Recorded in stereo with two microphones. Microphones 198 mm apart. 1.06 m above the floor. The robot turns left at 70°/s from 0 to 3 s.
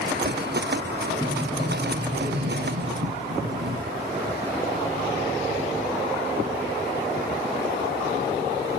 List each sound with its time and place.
1.2 s a sliding door: 5° left, 3.5 m; by 3.9 s 120° right, 3.5 m